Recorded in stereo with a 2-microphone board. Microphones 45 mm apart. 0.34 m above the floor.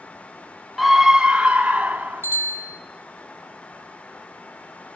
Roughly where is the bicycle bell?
Right.